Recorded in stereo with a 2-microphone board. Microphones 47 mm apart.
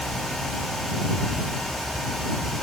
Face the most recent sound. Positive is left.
No sound to turn to.